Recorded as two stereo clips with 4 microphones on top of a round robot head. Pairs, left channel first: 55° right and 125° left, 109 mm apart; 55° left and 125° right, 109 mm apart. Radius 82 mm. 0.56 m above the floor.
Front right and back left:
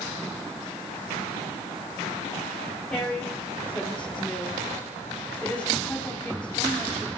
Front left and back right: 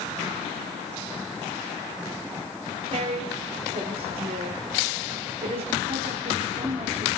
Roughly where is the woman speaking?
Behind right.